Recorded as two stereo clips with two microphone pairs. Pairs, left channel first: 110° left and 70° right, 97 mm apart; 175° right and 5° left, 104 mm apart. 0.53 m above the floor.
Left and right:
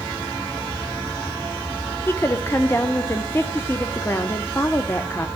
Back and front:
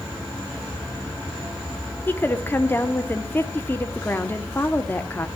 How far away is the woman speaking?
About 0.8 m.